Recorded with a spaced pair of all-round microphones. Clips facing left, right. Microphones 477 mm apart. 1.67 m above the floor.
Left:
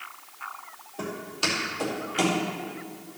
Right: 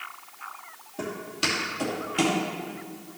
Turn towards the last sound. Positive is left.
turn(degrees=-25)  # may be behind; listen again after turning